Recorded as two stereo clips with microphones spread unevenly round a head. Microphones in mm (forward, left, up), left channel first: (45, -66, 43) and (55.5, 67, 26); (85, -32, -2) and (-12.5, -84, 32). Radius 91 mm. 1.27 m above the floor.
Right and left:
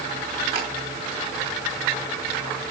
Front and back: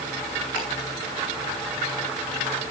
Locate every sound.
0.6 s ticking: 75° left, 5 m